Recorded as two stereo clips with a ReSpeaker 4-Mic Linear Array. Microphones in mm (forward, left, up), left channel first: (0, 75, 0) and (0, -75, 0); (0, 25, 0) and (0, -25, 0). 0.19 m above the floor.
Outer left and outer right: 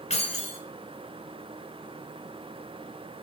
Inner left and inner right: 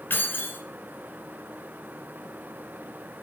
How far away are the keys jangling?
About 1.7 m.